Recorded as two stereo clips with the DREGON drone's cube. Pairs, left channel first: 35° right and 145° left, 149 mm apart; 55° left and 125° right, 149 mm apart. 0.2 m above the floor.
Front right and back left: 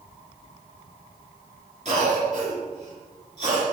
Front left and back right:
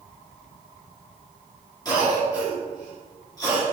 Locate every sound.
1.9 s a cough: 115° left, 3 m